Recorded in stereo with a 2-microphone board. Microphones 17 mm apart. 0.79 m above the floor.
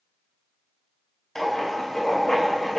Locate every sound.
1.4 s writing: 35° left (ahead or behind), 2.5 m